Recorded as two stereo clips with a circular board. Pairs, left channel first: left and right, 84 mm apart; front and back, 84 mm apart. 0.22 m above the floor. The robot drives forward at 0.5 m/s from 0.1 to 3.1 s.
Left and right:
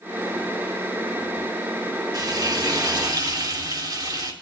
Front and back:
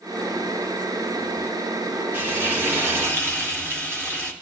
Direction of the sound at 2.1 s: 115° right.